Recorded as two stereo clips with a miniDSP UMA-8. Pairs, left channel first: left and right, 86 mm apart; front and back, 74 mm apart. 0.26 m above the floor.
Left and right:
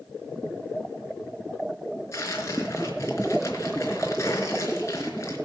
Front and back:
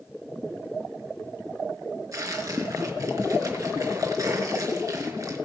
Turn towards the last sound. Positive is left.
turn(degrees=140)